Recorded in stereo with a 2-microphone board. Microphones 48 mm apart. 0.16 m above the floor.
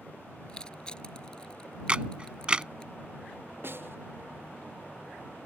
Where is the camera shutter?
25° right (ahead or behind).